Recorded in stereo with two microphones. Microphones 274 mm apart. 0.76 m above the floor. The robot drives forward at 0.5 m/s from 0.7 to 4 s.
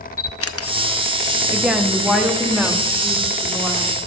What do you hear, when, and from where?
0.2 s a camera shutter: 55° left (ahead or behind), 0.6 m
1.5 s a woman speaking: 5° right (ahead or behind), 0.6 m; by 4.0 s centre (ahead or behind), 1.7 m